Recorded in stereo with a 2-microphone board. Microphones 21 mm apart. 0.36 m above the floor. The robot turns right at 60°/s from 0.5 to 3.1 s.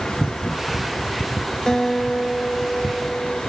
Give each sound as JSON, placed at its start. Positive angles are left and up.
{"t": 1.7, "sound": "a guitar", "azimuth_deg": 40, "distance_m": 1.2}